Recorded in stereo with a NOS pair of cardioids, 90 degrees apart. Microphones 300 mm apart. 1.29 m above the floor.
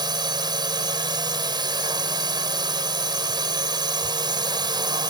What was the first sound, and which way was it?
A drone, 15° right.